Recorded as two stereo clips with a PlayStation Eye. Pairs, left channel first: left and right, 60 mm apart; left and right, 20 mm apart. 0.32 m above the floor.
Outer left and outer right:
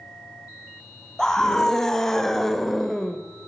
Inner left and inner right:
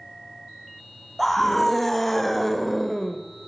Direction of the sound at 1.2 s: 10° left (ahead or behind).